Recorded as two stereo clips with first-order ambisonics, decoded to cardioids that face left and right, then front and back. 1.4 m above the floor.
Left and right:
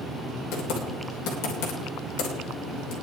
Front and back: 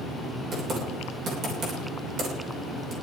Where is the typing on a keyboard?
120° left, 3 m.